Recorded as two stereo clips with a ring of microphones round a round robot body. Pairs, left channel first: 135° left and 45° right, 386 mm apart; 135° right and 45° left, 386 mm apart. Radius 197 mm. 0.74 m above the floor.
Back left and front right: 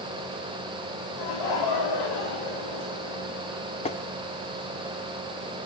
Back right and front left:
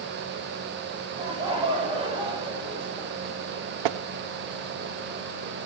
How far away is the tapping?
About 0.6 m.